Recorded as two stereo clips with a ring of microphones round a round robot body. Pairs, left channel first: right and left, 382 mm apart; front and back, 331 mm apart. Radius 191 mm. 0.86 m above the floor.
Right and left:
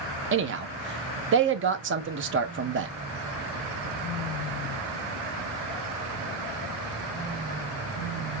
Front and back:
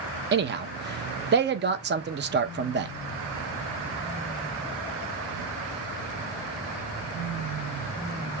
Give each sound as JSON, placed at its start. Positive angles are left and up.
{"t": 0.3, "sound": "a man speaking", "azimuth_deg": 135, "distance_m": 0.8}